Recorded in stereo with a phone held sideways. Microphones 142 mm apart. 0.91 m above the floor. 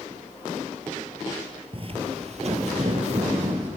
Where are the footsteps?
40° right (ahead or behind), 1.2 m; by 3.7 s 50° right (ahead or behind), 2 m.